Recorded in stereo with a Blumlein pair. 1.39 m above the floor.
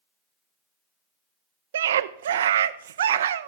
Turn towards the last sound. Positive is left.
turn(degrees=-60)